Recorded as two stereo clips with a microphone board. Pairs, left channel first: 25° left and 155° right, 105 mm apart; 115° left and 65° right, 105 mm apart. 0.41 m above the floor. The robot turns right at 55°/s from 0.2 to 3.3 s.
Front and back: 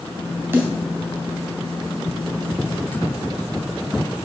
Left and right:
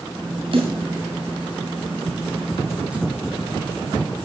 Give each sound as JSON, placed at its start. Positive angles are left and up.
{"t": 0.5, "sound": "a snare drum", "azimuth_deg": -90, "distance_m": 3.0}